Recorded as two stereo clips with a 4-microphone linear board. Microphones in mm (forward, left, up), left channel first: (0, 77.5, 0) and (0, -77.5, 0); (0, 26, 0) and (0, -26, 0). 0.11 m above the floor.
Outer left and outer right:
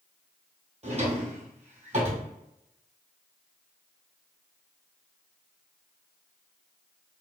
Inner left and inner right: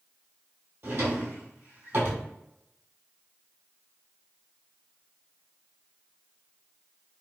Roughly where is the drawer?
Right.